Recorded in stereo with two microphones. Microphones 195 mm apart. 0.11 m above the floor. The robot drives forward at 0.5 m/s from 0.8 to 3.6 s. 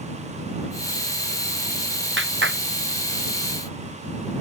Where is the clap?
85° right; by 2.6 s 80° right.